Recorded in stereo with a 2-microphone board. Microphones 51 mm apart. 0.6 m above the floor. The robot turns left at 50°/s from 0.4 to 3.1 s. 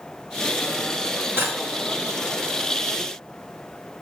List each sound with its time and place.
1.4 s cutlery clinking: 50° right (ahead or behind), 1.8 m; by 1.6 s 40° right (ahead or behind), 1.8 m